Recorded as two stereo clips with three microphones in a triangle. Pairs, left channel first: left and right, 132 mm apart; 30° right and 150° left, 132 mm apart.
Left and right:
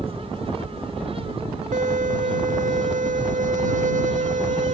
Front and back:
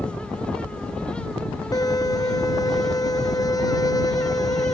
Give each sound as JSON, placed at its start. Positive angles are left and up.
{"t": 1.7, "sound": "a violin", "azimuth_deg": -90}